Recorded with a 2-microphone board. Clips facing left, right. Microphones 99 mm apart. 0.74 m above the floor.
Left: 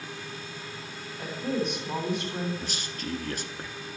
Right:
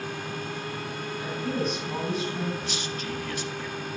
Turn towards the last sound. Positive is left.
turn(degrees=40)  # may be behind; listen again after turning